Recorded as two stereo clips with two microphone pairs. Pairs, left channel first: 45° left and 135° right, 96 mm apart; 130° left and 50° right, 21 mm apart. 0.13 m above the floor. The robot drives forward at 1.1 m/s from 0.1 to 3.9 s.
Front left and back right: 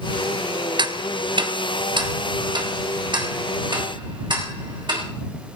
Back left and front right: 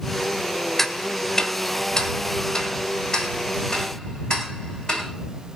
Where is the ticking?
155° right, 1.1 m; by 5.0 s 175° right, 4.5 m.